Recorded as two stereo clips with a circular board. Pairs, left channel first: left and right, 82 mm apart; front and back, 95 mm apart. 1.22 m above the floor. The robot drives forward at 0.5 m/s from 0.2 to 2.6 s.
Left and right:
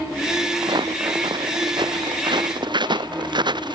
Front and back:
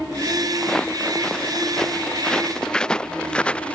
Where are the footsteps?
80° right; by 3.8 s 75° right.